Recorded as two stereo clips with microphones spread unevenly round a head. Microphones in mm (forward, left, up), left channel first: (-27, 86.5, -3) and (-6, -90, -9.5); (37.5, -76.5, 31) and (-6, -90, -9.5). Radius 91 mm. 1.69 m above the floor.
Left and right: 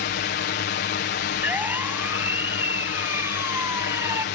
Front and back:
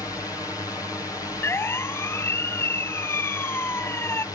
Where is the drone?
85° left.